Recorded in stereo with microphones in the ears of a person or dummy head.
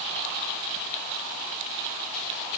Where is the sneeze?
No sneeze in this recording.